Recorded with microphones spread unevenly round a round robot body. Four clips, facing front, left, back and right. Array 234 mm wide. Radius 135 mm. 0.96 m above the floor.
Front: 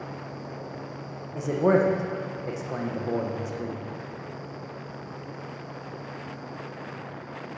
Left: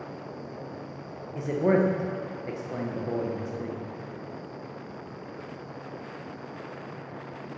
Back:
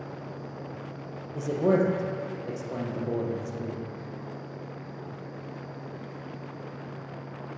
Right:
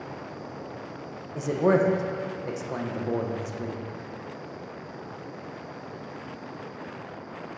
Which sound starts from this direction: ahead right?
A man speaking, at 1.4 s.